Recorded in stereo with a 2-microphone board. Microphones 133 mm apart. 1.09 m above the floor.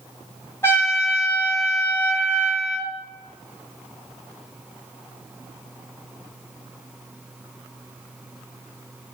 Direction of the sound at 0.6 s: 20° left (ahead or behind).